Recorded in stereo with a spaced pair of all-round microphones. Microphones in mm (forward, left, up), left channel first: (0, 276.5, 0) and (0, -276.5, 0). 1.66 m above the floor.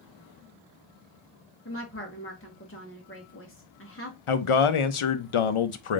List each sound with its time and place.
1.6 s a woman speaking: 20° left (ahead or behind), 0.8 m
4.3 s a man speaking: 60° left (ahead or behind), 0.6 m